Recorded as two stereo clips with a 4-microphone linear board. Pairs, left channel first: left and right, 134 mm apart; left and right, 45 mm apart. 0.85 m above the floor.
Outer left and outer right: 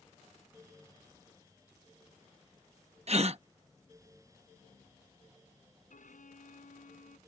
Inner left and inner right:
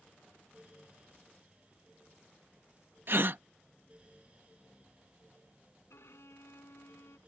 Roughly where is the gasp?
Right.